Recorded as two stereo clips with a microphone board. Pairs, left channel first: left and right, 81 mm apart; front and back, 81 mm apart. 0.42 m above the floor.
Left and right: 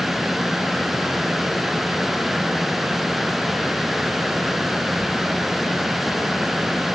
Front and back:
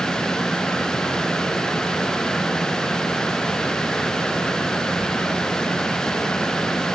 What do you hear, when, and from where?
Only background noise.